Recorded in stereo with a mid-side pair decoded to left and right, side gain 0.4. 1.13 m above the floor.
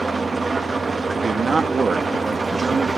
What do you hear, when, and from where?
0.0 s an engine running: 30° right, 1.2 m
1.1 s a man speaking: 40° right, 1.4 m